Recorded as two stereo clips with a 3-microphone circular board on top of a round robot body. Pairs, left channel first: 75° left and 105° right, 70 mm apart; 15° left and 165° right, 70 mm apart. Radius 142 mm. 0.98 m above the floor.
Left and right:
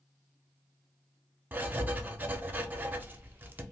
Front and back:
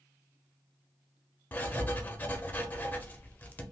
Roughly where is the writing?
Ahead right.